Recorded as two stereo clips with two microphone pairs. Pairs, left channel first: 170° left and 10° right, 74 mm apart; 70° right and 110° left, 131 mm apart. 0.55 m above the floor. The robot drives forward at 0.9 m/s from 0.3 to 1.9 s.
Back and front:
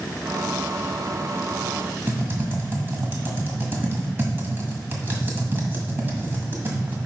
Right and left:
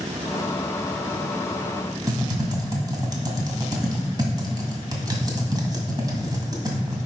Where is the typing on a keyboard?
50° left, 1.6 m.